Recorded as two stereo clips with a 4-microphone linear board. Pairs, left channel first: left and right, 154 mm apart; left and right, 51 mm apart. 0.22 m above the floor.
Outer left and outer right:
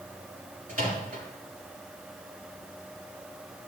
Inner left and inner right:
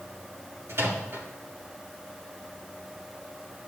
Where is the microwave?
65° right (ahead or behind), 3.5 m.